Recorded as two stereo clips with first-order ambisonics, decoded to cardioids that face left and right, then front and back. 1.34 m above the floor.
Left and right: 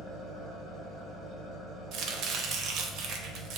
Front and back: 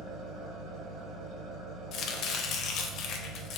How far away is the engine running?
About 1.7 m.